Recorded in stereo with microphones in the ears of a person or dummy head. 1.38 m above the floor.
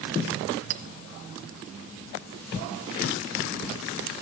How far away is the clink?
About 0.7 m.